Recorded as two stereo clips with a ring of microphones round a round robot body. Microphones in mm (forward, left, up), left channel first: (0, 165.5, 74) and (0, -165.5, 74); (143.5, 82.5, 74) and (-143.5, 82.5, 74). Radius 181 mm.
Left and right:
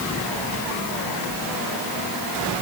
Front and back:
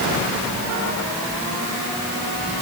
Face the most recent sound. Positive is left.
No sound to turn to.